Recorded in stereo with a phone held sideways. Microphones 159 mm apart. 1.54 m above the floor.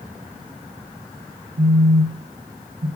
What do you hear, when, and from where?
1.6 s a phone buzzing: 75° right (ahead or behind), 0.9 m